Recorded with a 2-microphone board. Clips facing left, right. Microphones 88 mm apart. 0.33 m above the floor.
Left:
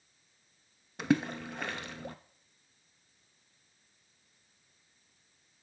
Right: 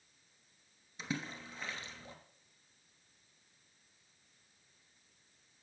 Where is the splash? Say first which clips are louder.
Left 13 dB; 70° left (ahead or behind), 0.7 m.